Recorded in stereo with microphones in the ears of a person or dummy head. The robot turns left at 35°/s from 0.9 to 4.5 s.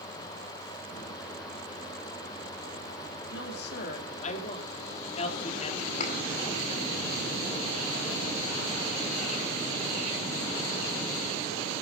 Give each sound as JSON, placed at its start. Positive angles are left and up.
{"t": 3.3, "sound": "a woman speaking", "azimuth_deg": 80, "distance_m": 3.5}
{"t": 6.0, "sound": "a thud", "side_deg": 45, "distance_m": 6.5}